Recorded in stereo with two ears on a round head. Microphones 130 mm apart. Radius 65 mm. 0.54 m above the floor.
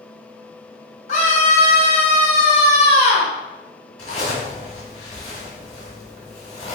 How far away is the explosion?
No explosion in this recording.